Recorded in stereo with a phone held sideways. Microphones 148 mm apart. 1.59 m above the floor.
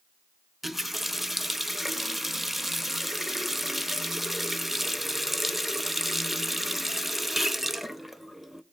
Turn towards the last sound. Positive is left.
turn(degrees=0)  # may be behind; listen again after turning